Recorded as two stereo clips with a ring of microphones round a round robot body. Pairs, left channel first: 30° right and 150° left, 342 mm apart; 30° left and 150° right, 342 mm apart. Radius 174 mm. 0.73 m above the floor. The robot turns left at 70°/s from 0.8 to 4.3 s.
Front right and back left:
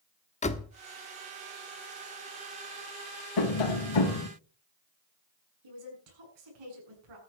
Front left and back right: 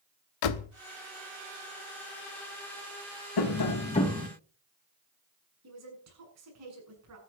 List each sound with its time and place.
0.4 s a door slam: 40° left, 1.1 m
3.4 s tapping: straight ahead, 3 m; by 4.3 s 65° right, 3 m
5.6 s a woman speaking: 160° left, 7 m